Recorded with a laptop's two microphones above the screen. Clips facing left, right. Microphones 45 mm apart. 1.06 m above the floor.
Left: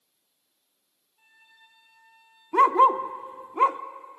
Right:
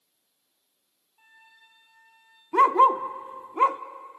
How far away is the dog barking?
About 0.7 m.